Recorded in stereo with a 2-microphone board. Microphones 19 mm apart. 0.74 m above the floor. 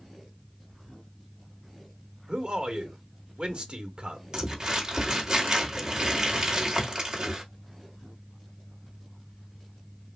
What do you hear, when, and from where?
2.3 s a man speaking: 70° right (ahead or behind), 1.2 m
4.3 s crumpling: 35° right (ahead or behind), 1.6 m